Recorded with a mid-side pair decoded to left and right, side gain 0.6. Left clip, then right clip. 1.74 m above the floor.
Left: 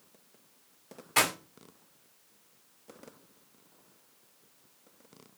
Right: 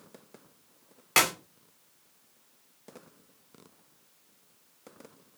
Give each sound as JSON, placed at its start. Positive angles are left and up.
{"t": 1.2, "sound": "a clap", "azimuth_deg": -60, "distance_m": 1.8}